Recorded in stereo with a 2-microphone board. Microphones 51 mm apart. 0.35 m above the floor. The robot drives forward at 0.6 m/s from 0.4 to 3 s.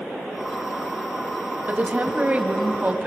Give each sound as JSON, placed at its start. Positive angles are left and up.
{"t": 1.7, "sound": "a woman speaking", "side_deg": -30, "distance_m": 2.5}